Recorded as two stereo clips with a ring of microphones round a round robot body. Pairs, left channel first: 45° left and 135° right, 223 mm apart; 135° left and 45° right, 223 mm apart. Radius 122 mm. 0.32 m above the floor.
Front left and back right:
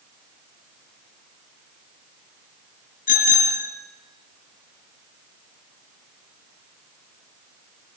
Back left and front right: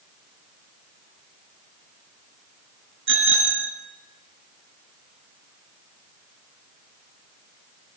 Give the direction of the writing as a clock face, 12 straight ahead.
I don't hear writing.